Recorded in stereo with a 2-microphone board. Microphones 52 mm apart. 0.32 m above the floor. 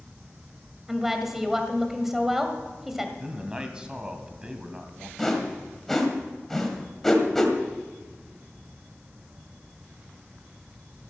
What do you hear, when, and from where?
0.9 s a woman speaking: 5° right (ahead or behind), 1.6 m
3.2 s a man speaking: 15° right (ahead or behind), 1.8 m
5.2 s a whoosh: 5° left (ahead or behind), 1.8 m